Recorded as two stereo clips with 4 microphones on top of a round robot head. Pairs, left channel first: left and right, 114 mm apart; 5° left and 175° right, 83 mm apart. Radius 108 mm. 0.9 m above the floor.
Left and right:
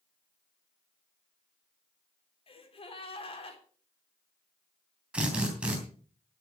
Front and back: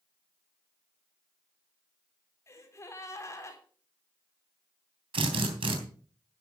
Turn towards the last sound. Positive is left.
turn(degrees=-170)